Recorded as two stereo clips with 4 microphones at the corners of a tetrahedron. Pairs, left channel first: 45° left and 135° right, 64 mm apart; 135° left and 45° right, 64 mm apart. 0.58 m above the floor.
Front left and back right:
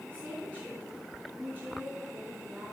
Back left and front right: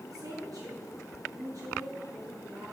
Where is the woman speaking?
70° right, 6 m; by 2.7 s 80° right, 7 m.